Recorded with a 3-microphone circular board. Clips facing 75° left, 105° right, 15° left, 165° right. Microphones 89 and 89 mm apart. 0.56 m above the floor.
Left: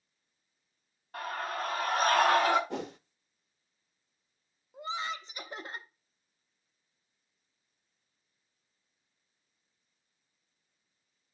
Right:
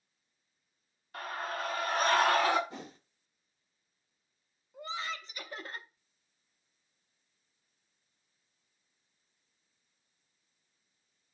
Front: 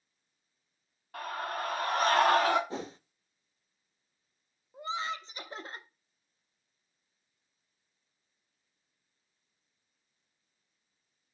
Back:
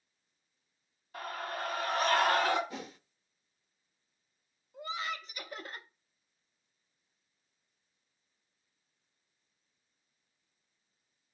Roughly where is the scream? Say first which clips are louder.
Left 2 dB, front 3 dB; ahead left.